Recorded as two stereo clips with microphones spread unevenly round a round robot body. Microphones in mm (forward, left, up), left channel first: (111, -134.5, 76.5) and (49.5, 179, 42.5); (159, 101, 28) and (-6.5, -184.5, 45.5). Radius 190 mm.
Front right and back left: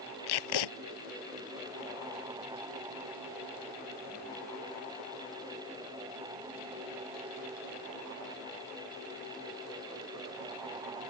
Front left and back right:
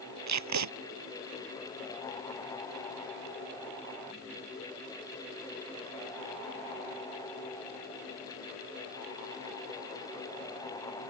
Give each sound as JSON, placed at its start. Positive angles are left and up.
{"t": 0.3, "sound": "tape being pulled", "azimuth_deg": -85}